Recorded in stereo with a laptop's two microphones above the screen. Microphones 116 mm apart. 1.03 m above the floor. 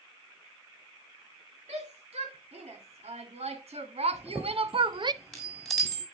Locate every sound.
1.7 s a shout: 75° right (ahead or behind), 3 m; by 5.1 s 40° right (ahead or behind), 0.5 m
4.1 s a chime: 5° left (ahead or behind), 1.9 m